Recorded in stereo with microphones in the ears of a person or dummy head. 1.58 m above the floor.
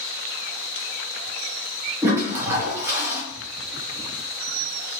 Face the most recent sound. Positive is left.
turn(degrees=-10)  # may be behind; listen again after turning